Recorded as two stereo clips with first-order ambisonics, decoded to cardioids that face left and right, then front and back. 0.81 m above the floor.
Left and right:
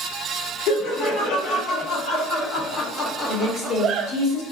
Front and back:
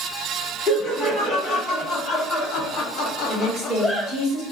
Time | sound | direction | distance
0.7 | laughter | 60° left | 2 m
3.3 | a woman speaking | 60° left | 2 m